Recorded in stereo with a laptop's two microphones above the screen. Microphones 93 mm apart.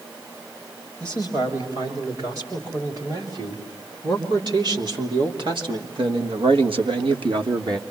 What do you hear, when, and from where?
1.0 s a man speaking: 40° right (ahead or behind), 6.5 m; by 7.8 s 50° right (ahead or behind), 1.6 m